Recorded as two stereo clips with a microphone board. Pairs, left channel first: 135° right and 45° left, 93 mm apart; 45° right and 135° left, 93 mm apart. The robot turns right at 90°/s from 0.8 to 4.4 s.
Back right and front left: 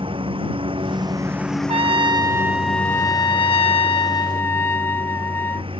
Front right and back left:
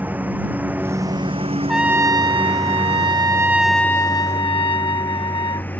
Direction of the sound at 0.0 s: 65° left.